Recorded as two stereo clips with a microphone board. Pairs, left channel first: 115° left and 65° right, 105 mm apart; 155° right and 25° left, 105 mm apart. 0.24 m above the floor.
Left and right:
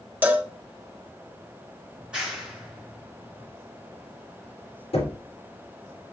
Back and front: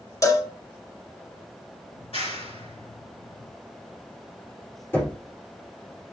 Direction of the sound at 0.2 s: 130° right.